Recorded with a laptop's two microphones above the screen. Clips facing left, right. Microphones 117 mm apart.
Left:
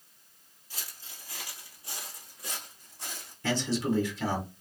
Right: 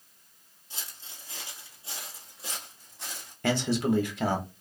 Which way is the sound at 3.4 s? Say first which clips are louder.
Right 3 dB; 60° right (ahead or behind).